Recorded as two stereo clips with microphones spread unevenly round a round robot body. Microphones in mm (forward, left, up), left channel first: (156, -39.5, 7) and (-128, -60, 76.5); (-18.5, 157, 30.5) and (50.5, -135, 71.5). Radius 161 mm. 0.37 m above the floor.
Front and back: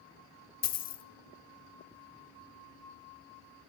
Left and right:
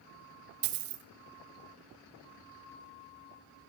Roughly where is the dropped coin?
Ahead right.